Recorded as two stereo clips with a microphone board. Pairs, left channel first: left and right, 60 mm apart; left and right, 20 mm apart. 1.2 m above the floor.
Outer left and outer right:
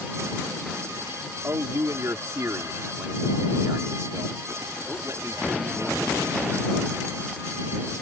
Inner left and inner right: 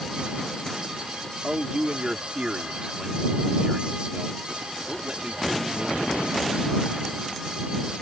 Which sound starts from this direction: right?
A man speaking, at 1.4 s.